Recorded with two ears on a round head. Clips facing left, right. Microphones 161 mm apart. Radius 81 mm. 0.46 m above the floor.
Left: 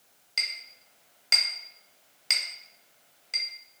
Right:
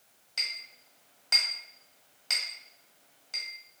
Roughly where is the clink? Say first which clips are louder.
Left 3 dB; left.